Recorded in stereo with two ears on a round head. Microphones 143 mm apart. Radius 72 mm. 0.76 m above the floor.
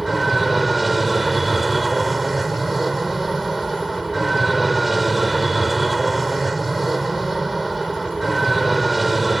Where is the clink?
I don't hear a clink.